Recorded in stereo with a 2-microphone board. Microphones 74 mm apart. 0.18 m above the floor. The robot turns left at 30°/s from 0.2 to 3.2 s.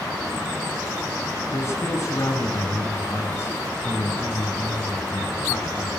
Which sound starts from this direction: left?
A man speaking, at 1.5 s.